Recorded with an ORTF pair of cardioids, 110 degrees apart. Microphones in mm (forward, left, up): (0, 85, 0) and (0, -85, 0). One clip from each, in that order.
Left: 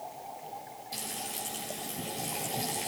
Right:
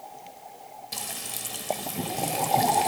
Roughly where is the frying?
Ahead right.